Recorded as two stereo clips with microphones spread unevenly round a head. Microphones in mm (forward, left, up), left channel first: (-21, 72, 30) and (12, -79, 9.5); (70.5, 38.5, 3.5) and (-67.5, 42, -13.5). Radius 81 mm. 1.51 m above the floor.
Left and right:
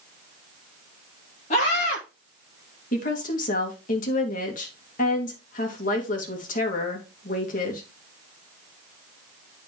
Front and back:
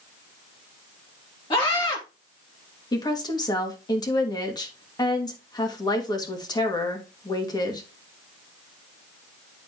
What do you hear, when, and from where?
1.5 s a scream: 55° left, 2.5 m
2.9 s a woman speaking: 60° left, 2 m